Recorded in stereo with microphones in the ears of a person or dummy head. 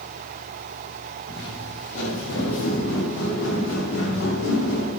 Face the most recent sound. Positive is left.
turn(degrees=70)  # may be behind; listen again after turning